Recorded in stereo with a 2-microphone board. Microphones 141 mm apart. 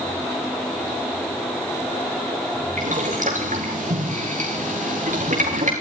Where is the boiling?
60° right (ahead or behind), 3.5 m.